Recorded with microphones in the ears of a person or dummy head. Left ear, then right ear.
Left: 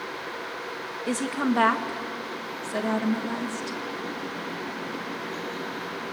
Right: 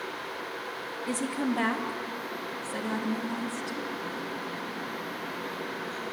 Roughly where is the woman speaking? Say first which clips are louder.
Left 4 dB; left.